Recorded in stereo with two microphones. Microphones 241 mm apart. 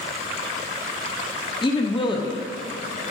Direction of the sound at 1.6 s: 20° left (ahead or behind).